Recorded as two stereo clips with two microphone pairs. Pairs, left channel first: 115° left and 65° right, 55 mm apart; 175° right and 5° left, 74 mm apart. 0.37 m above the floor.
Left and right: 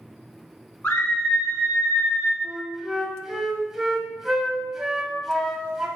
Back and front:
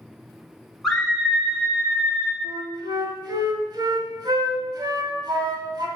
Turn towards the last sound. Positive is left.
turn(degrees=15)